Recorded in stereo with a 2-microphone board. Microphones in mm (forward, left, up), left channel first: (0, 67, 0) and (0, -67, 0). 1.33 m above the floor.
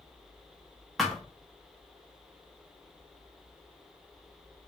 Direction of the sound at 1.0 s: Centre (ahead or behind).